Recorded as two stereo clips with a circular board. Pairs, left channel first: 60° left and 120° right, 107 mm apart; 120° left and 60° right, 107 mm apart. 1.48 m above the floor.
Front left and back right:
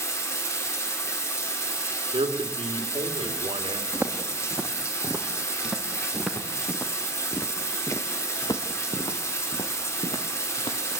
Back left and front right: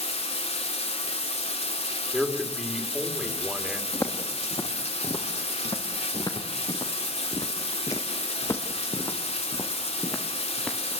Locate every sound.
0.0 s running water: 125° left, 3 m
2.1 s a man speaking: 145° right, 3 m
3.9 s footsteps: 175° left, 3 m; by 10.8 s 45° left, 2.5 m